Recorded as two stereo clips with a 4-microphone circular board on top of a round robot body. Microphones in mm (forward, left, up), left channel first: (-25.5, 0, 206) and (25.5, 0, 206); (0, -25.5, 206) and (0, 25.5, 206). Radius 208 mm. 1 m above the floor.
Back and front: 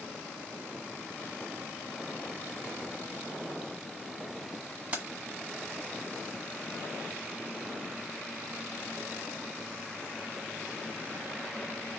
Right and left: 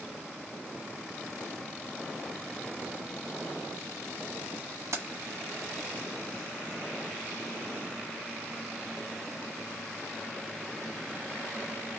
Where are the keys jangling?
60° left, 1.2 m.